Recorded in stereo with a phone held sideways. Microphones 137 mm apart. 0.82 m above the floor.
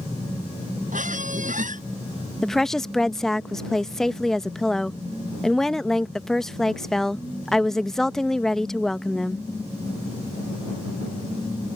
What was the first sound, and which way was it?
A squeak, 85° right.